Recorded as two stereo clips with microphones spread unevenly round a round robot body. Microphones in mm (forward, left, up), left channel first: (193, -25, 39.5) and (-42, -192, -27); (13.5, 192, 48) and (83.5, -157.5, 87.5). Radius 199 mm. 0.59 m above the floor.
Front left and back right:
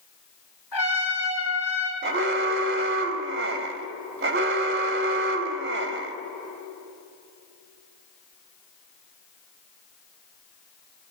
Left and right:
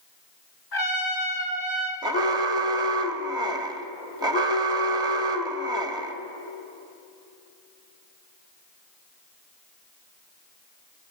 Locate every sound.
0.7 s a trumpet: 85° left, 5 m
2.0 s an alarm: 160° right, 1.2 m